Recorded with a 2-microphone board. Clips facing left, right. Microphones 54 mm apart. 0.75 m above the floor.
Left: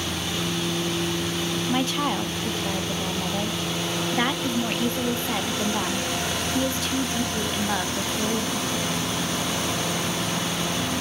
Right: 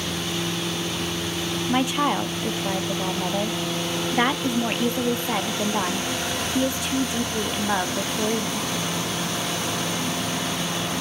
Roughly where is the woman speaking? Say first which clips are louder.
Right 4 dB; centre.